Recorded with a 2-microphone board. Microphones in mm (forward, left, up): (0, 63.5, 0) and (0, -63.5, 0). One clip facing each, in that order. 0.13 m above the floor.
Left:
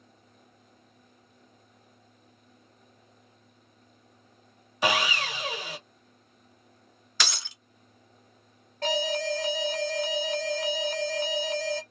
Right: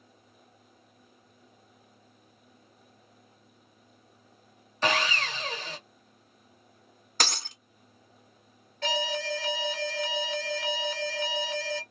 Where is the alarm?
40° left (ahead or behind), 1.0 m.